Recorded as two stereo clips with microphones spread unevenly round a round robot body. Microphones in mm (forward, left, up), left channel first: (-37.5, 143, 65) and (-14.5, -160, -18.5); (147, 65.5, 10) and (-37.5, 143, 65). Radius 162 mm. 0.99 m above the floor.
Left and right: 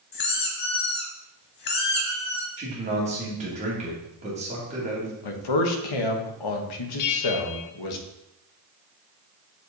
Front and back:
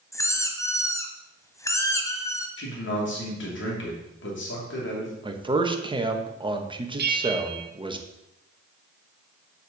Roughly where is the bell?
Behind left.